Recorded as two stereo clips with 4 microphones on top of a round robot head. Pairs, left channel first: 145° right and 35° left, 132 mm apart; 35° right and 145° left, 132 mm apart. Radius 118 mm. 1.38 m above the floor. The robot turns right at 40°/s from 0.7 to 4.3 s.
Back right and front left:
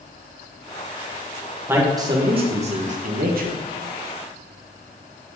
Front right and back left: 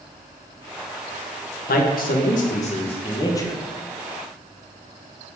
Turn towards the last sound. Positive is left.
turn(degrees=65)